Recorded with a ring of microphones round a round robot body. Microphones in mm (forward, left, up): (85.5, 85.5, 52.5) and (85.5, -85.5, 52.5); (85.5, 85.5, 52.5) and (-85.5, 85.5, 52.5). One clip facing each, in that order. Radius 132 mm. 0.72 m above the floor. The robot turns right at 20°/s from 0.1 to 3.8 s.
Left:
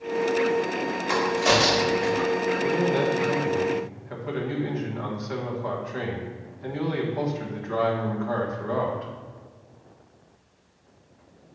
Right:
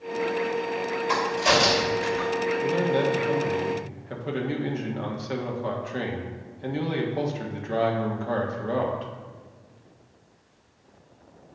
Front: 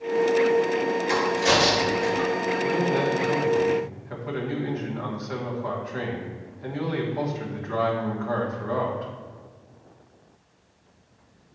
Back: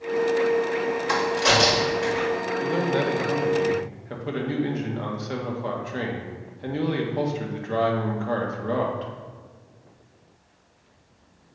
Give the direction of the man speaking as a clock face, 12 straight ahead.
5 o'clock.